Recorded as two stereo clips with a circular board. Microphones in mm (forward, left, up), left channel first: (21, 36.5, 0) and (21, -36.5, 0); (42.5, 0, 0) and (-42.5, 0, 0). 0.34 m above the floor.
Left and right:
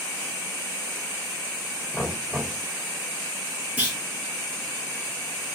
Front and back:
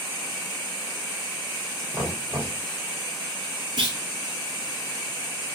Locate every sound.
1.9 s knocking: straight behind, 3 m
3.8 s a clunk: 160° right, 1.5 m